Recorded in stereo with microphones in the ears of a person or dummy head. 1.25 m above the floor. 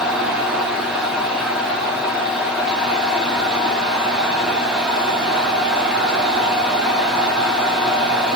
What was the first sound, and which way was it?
A fan, centre (ahead or behind).